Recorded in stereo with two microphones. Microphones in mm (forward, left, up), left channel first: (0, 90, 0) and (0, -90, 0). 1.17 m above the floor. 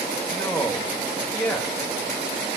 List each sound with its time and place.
0.3 s a man speaking: 10° left (ahead or behind), 1.7 m